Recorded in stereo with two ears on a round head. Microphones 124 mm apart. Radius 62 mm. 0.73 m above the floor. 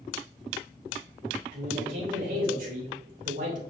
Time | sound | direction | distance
1.5 | a man speaking | 70° right (ahead or behind) | 3.5 m